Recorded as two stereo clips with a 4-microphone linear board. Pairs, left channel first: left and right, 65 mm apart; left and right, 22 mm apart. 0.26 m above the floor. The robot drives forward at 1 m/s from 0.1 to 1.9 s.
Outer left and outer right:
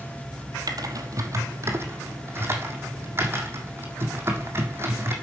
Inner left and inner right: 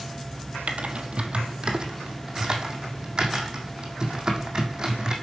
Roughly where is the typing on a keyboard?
Right.